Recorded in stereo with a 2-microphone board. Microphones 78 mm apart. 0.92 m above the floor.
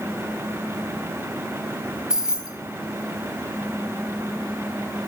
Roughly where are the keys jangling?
Centre.